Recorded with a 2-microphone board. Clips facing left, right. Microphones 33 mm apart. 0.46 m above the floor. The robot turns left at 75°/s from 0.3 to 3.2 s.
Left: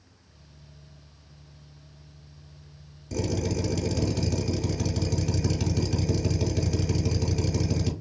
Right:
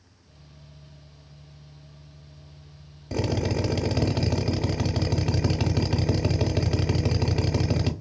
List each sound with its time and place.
3.1 s a drill: 35° right (ahead or behind), 0.7 m; by 7.9 s 40° right (ahead or behind), 0.7 m